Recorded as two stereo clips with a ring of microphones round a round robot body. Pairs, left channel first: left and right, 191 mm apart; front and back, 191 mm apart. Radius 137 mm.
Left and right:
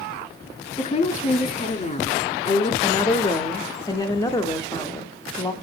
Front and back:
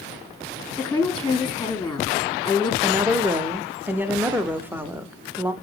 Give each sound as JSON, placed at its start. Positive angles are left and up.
{"t": 0.8, "sound": "a woman speaking", "azimuth_deg": 75, "distance_m": 1.3}
{"t": 2.8, "sound": "a woman speaking", "azimuth_deg": 115, "distance_m": 0.7}